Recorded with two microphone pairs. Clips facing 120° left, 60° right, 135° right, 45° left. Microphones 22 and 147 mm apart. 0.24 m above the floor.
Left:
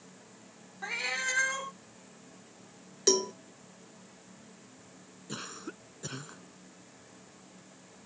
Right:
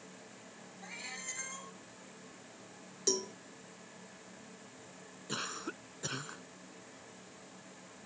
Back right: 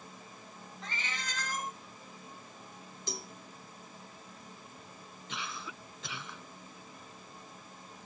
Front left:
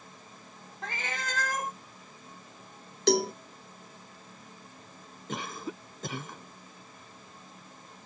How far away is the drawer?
No drawer in this recording.